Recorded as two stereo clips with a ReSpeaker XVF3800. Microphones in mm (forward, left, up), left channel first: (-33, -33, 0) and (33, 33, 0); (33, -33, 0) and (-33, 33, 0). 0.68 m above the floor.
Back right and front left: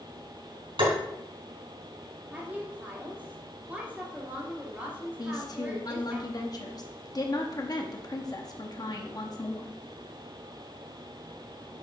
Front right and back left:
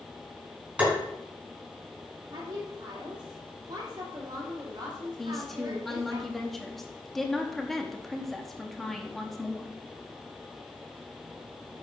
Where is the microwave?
I don't hear a microwave.